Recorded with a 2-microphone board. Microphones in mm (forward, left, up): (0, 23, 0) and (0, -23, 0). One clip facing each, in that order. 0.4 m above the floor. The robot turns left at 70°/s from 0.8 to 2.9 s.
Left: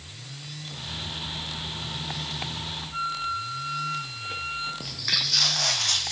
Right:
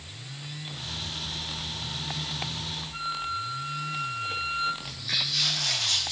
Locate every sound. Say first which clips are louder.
2.9 s a flute: left 3 dB; 5° left (ahead or behind), 4.5 m
4.8 s footsteps: left 2 dB; 60° left (ahead or behind), 0.8 m; by 6.1 s 55° left (ahead or behind), 1.6 m